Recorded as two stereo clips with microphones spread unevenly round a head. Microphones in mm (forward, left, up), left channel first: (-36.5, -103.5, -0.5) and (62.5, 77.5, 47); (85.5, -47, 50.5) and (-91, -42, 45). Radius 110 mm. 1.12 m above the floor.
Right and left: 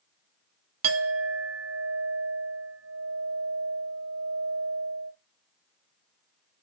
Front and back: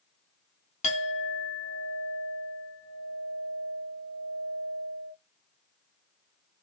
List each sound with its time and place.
0.8 s a clink: 55° left, 0.9 m